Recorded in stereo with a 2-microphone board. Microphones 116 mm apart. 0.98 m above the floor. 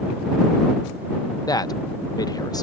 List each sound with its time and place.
1.5 s a man speaking: 30° left (ahead or behind)